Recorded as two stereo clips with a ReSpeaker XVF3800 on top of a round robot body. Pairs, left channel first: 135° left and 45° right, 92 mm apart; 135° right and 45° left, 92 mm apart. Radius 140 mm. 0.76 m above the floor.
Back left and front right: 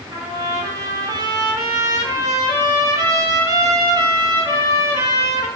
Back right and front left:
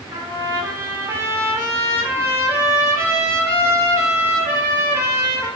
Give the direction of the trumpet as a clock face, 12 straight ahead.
12 o'clock.